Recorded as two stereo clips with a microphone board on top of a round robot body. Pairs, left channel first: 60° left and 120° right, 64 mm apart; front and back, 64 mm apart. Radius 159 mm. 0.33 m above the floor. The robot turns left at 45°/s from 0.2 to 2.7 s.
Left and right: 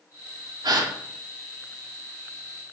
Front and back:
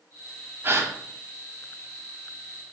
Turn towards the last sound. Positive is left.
turn(degrees=145)